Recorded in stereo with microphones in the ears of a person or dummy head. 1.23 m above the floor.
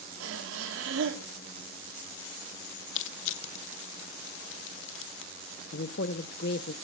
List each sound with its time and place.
0.2 s breathing: 80° right, 2.5 m
3.0 s crushing: 75° left (ahead or behind), 0.7 m
5.7 s a woman speaking: 55° left (ahead or behind), 0.8 m